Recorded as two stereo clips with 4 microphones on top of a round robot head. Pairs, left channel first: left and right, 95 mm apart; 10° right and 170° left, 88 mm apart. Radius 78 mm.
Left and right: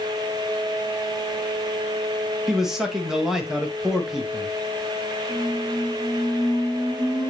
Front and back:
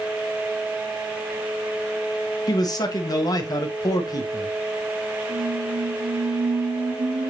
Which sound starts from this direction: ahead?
A man speaking, at 2.5 s.